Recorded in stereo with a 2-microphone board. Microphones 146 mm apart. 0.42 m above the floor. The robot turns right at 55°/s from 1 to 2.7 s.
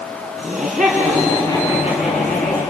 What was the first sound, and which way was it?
Laughter, 5° right.